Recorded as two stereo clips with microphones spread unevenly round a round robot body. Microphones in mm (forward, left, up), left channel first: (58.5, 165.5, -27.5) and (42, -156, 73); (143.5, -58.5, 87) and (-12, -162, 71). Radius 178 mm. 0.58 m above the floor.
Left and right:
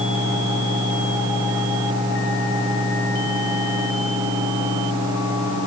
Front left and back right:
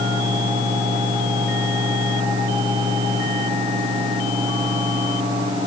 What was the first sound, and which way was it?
Only background noise.